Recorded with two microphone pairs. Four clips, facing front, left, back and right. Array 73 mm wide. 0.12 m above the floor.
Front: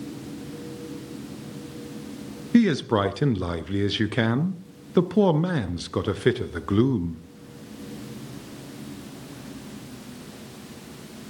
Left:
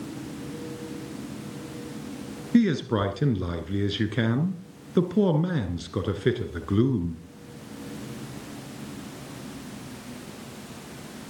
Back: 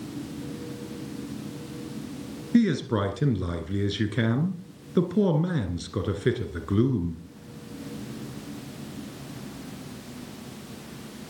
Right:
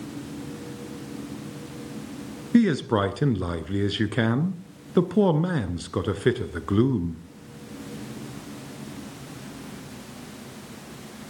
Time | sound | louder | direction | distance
2.5 | a man speaking | right 2 dB, front 3 dB | 50° right | 1.2 m